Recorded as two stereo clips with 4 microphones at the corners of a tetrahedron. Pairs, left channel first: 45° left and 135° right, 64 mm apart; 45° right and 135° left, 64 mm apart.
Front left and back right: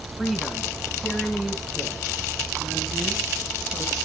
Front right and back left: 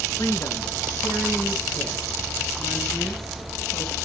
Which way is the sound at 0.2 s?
45° right.